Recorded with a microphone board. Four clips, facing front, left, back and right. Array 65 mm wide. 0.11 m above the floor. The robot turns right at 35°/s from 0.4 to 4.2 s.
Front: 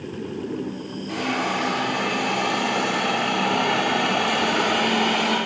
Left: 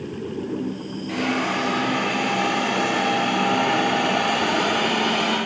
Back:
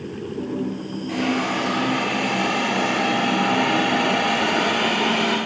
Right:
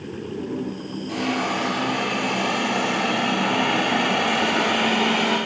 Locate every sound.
1.1 s a hiss: 105° left, 2 m; by 5.4 s 150° right, 2 m